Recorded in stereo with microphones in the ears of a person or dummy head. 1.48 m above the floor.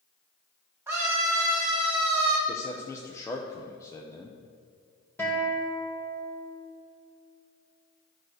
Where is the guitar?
15° left (ahead or behind), 1.9 m.